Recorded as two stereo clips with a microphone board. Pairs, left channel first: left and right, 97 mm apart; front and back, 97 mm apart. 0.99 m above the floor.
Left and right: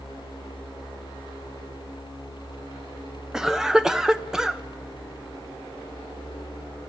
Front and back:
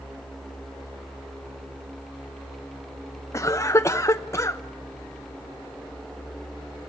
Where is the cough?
10° right, 0.5 m.